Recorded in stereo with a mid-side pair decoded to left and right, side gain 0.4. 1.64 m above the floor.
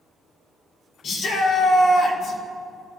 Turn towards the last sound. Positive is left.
turn(degrees=65)